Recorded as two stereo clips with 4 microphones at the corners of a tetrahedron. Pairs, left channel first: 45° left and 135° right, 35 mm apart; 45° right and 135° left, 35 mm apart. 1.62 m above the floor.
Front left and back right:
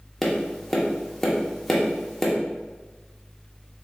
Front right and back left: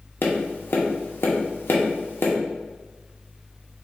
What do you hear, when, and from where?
0.2 s tapping: 35° right, 0.9 m